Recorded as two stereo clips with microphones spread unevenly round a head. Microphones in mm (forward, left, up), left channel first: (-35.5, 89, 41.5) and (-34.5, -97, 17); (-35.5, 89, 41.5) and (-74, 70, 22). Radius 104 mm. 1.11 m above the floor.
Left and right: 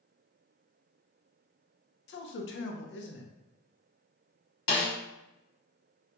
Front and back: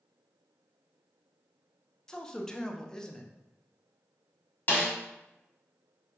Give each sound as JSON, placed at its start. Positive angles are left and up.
{"t": 2.1, "sound": "a man speaking", "azimuth_deg": 115, "distance_m": 0.6}
{"t": 4.7, "sound": "a snare drum", "azimuth_deg": 85, "distance_m": 1.3}